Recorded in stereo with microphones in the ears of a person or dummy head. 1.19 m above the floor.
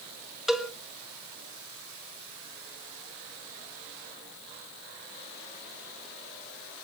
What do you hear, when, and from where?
0.5 s a cowbell: 5° left (ahead or behind), 1.8 m